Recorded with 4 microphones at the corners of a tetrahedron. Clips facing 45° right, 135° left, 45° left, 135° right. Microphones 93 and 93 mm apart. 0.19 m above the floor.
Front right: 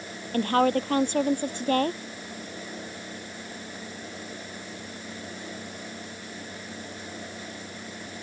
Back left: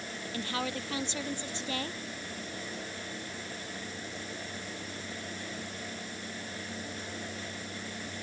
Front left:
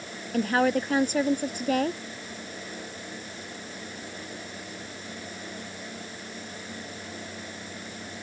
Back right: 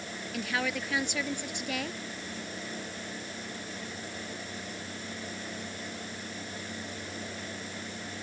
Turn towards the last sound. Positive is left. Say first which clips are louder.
# front right 14 dB, front left 10 dB
turn(degrees=-5)